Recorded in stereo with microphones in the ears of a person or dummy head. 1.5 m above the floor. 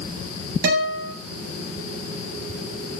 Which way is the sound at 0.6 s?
55° right (ahead or behind).